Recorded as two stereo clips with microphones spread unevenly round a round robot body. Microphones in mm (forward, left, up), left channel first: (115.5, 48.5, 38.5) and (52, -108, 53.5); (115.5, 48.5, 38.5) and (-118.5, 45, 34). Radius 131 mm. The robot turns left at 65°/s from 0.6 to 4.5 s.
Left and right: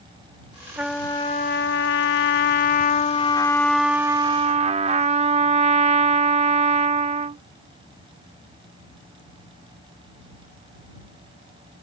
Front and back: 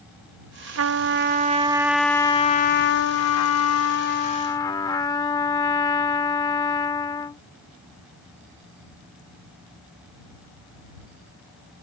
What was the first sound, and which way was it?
A trumpet, 170° left.